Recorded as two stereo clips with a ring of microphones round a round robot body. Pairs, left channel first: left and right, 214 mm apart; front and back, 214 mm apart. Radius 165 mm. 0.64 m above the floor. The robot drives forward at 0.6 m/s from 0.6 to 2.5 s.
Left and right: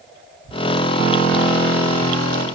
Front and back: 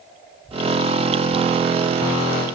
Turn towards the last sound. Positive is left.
No sound to turn to.